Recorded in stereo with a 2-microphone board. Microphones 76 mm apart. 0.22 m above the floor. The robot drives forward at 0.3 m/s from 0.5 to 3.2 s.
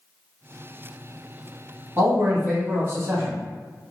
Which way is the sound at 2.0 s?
40° right (ahead or behind).